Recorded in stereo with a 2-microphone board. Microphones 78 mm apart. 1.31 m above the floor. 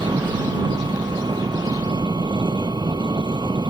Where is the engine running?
80° right.